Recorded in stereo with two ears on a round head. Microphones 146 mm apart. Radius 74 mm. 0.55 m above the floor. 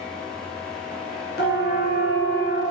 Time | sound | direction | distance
1.4 | a siren | 65° left (ahead or behind) | 6 m